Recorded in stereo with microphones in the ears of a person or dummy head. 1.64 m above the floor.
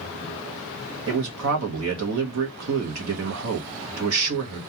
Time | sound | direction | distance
1.1 | a man speaking | 85° right | 0.9 m